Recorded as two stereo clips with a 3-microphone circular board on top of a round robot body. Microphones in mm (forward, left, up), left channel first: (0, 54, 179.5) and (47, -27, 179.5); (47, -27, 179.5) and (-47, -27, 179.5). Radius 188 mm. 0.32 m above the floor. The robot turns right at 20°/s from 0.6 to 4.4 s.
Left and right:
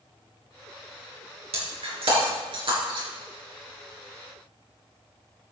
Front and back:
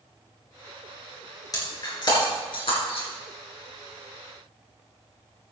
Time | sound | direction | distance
1.5 | breaking glass | 50° right | 3.5 m